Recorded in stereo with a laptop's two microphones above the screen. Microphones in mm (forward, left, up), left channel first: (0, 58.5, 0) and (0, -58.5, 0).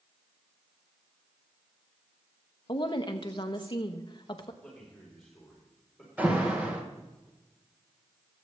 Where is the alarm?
15° right (ahead or behind), 1.6 m.